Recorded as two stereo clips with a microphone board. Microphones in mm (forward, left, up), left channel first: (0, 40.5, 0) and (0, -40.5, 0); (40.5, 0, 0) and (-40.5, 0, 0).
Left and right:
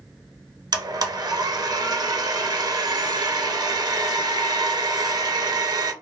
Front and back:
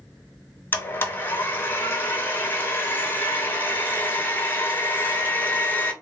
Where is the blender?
65° right, 0.6 m.